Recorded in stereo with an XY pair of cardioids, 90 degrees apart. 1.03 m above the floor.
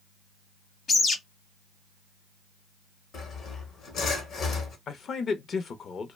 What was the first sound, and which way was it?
A bird, 55° left.